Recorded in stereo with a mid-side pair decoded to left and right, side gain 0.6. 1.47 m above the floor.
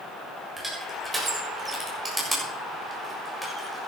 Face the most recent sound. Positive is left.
turn(degrees=-15)